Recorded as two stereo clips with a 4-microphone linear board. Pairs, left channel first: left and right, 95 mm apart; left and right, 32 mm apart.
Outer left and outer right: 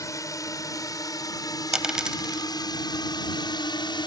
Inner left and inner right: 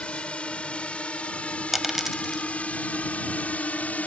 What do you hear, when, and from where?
0.0 s a drone: 35° left (ahead or behind); by 4.1 s 55° left (ahead or behind)
1.7 s a dropped coin: 10° right (ahead or behind)